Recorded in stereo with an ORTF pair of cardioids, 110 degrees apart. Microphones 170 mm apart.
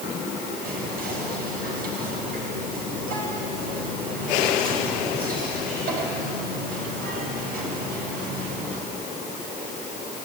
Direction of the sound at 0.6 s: 60° right.